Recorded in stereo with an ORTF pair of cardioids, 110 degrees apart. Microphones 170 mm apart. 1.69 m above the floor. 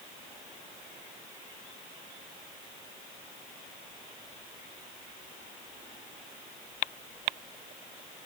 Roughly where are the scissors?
I don't hear scissors.